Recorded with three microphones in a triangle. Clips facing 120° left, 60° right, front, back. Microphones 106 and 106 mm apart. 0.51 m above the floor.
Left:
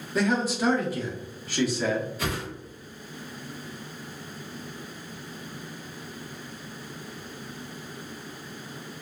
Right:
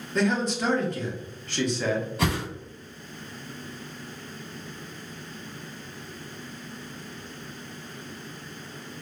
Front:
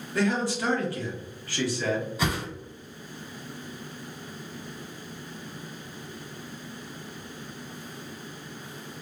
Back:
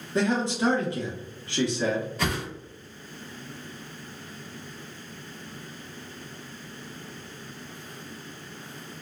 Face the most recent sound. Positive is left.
turn(degrees=-75)